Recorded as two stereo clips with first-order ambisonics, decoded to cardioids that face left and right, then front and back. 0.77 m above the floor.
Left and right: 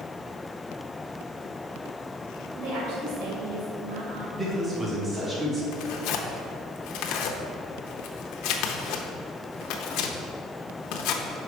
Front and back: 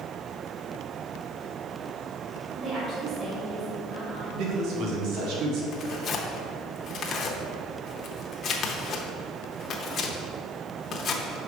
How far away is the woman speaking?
About 2 m.